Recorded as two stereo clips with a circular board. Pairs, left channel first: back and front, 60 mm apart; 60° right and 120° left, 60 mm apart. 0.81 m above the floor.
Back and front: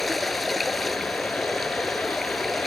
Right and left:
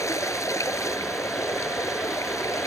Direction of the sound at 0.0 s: 90° right.